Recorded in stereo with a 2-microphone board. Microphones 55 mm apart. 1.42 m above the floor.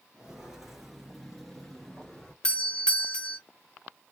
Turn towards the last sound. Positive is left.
turn(degrees=20)  # may be behind; listen again after turning